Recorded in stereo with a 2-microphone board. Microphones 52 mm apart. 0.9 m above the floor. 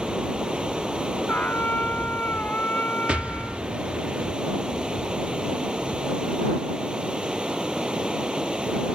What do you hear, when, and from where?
0.0 s running water: 20° right (ahead or behind)
1.3 s a trumpet: 35° left (ahead or behind)
3.1 s an explosion: 25° right (ahead or behind)